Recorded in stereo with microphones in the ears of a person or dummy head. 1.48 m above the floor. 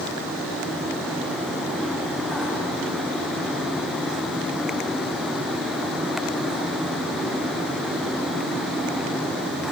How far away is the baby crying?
I don't hear a baby crying.